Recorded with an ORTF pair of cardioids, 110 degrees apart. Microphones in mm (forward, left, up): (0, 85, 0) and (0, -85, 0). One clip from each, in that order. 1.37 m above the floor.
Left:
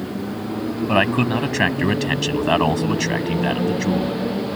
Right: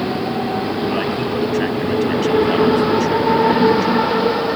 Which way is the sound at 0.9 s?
50° left.